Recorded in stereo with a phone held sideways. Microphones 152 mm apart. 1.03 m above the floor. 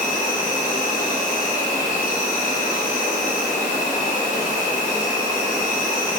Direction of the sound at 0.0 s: 65° left (ahead or behind).